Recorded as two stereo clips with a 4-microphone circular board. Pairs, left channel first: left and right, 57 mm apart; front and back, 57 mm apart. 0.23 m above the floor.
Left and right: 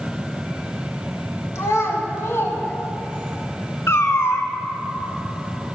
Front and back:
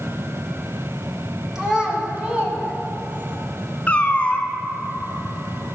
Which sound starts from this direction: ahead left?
A cat meowing, at 3.9 s.